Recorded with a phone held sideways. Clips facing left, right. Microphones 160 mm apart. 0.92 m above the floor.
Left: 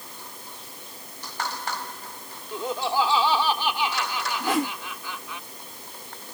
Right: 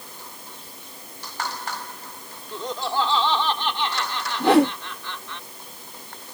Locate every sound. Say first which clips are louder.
2.5 s laughter: left 1 dB; 10° left (ahead or behind)
4.4 s a whoosh: right 10 dB; 65° right (ahead or behind)